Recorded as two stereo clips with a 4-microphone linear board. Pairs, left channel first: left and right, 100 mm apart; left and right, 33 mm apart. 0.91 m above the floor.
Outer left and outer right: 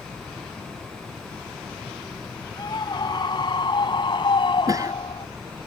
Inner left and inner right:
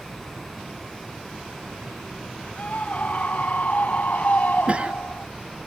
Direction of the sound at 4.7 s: 35° right (ahead or behind).